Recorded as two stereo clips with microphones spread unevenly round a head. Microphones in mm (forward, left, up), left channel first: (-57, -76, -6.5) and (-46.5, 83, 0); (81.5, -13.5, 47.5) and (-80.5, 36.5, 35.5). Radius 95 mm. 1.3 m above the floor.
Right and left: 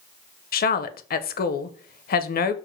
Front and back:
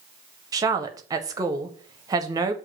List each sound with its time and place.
0.5 s a woman speaking: 125° right, 0.6 m